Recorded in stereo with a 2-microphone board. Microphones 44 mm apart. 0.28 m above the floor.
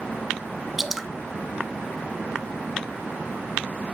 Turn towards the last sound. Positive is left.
turn(degrees=-5)  # may be behind; listen again after turning